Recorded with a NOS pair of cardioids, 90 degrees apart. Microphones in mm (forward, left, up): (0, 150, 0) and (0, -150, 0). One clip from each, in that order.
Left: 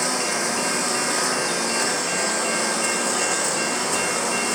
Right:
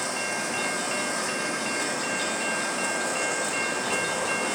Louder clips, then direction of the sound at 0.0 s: Left 5 dB; 55° left.